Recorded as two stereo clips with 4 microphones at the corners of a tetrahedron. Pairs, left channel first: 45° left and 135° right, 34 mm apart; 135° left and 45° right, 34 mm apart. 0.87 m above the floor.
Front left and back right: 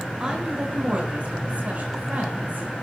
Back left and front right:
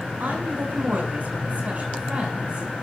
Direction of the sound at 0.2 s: 75° right.